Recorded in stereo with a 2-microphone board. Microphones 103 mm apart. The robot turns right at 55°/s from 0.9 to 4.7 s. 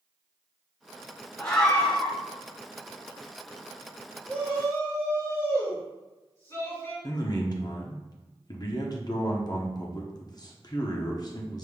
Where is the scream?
10° left (ahead or behind), 1.2 m; by 2.1 s 10° right (ahead or behind), 1.2 m.